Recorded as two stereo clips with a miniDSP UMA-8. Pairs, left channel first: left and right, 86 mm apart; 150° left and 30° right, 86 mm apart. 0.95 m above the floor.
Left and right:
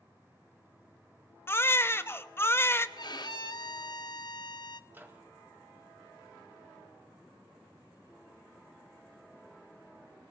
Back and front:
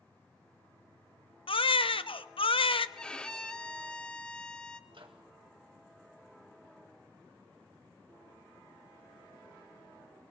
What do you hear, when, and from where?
1.5 s a baby crying: 155° left, 0.5 m
3.0 s a violin: 70° left, 0.7 m
4.9 s a microwave: 25° right, 2 m